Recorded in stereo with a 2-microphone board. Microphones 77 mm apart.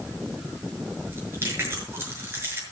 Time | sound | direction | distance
1.1 | chewing | 30° right (ahead or behind) | 6 m